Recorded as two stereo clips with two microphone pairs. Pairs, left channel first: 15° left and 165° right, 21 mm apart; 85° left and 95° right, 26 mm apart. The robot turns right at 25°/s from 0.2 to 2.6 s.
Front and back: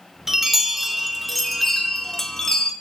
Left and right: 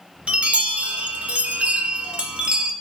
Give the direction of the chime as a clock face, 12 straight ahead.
4 o'clock.